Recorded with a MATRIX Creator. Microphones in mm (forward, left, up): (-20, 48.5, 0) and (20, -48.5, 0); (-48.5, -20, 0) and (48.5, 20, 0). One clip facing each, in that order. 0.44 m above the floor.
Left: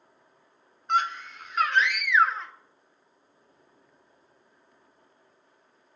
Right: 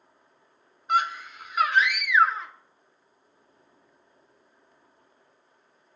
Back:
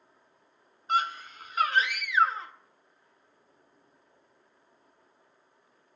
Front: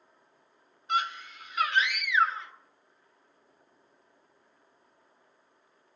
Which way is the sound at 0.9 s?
150° right.